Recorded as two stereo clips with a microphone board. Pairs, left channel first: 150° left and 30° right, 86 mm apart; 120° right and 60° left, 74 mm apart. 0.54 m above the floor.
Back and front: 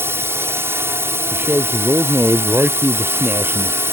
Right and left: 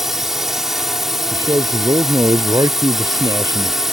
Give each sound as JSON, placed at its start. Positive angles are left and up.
{"t": 0.0, "sound": "a drone", "azimuth_deg": -20}
{"t": 1.3, "sound": "a man speaking", "azimuth_deg": 35}